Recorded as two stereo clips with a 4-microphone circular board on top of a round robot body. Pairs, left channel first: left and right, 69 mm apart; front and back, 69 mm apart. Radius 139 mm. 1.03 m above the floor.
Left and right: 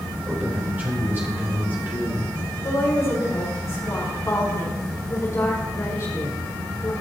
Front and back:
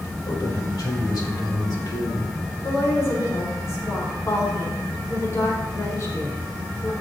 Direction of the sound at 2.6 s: 45° left.